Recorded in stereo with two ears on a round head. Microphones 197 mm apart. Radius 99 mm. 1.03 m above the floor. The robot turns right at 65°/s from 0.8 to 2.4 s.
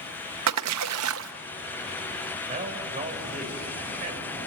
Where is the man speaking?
35° right (ahead or behind), 5 m.